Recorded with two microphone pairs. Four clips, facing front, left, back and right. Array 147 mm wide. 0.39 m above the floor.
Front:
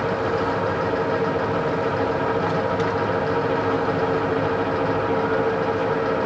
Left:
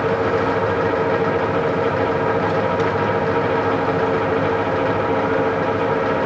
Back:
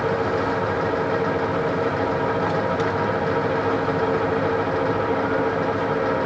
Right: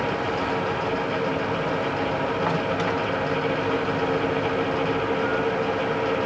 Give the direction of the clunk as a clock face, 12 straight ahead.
No clunk in this recording.